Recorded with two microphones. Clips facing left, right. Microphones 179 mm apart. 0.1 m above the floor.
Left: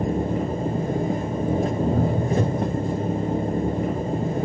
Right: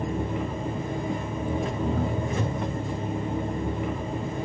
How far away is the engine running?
About 1.8 m.